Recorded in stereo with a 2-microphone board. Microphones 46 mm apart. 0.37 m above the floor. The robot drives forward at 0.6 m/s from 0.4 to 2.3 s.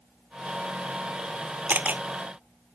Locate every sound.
1.7 s a camera shutter: 35° right (ahead or behind)